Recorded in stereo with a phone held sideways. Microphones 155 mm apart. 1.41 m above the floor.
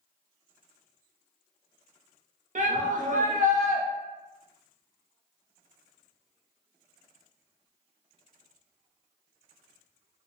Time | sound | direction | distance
2.5 | a shout | 55° right (ahead or behind) | 0.7 m